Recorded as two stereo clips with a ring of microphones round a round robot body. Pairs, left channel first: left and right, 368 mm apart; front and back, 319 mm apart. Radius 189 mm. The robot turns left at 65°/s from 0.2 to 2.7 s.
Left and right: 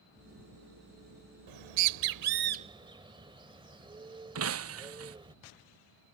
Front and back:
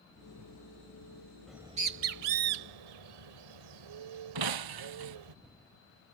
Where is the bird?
90° right; by 5.3 s 170° right.